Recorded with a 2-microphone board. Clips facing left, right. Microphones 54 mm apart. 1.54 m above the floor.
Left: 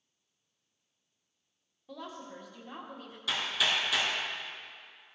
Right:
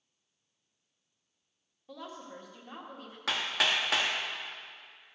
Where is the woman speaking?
10° right (ahead or behind), 1.9 m.